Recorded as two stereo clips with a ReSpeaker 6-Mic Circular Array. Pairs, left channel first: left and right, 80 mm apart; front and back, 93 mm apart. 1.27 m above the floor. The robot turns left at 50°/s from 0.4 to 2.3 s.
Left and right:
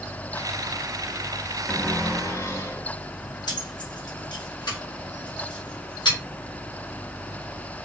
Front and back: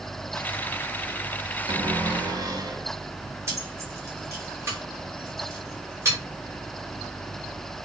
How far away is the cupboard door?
About 1.5 m.